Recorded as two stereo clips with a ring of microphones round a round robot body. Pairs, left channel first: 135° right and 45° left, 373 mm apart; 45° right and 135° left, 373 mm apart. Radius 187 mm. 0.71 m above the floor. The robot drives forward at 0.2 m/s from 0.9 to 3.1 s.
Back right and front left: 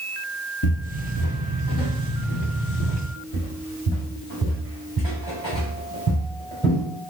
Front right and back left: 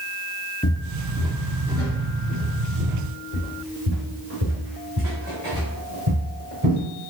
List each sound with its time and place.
0.6 s footsteps: 115° right, 0.8 m; by 6.8 s 170° left, 4 m